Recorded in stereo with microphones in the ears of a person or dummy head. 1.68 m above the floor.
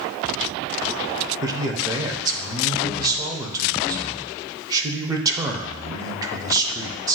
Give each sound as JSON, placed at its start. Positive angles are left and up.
{"t": 1.4, "sound": "a man speaking", "side_deg": -20, "distance_m": 0.6}